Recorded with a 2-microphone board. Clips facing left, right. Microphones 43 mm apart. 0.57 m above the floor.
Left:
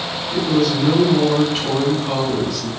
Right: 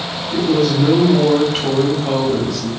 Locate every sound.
0.3 s a woman speaking: 35° right (ahead or behind), 1.2 m